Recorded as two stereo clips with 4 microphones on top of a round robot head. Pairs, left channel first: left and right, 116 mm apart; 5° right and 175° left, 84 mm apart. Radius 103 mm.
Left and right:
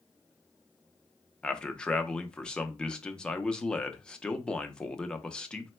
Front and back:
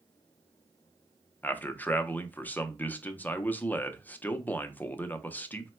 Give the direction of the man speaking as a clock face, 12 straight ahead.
11 o'clock.